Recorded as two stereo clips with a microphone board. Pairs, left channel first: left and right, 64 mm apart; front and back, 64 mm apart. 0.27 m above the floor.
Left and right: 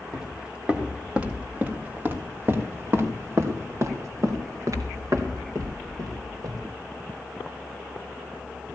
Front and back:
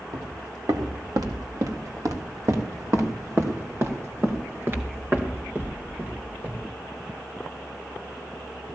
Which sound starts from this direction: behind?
Footsteps, at 0.1 s.